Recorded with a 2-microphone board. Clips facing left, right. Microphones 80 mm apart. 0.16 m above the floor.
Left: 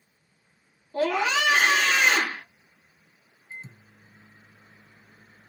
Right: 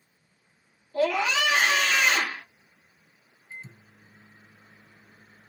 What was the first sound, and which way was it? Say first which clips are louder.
A scream: even; 35° left (ahead or behind).